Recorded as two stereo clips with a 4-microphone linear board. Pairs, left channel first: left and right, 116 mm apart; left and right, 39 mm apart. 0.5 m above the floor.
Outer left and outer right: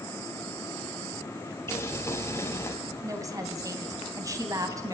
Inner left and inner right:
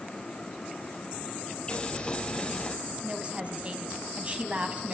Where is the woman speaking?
30° right (ahead or behind), 3 m.